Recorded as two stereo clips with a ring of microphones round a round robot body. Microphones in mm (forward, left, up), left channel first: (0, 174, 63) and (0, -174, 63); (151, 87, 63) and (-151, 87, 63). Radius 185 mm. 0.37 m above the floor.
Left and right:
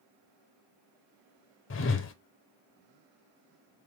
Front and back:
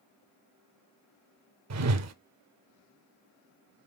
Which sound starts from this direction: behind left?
A whoosh, at 1.7 s.